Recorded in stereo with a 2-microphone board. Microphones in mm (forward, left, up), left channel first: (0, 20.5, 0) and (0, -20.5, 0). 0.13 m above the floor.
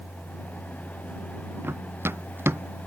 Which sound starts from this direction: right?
Running footsteps, at 1.6 s.